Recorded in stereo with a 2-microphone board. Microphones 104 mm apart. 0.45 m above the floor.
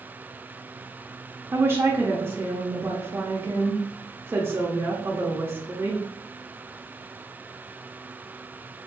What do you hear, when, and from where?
1.5 s a woman speaking: 25° right (ahead or behind), 0.8 m